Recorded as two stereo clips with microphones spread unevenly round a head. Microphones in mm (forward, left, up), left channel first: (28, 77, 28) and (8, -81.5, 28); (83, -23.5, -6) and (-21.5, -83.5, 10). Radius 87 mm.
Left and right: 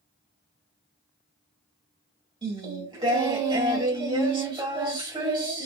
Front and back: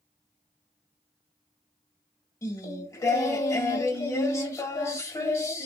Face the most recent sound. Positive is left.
turn(degrees=-35)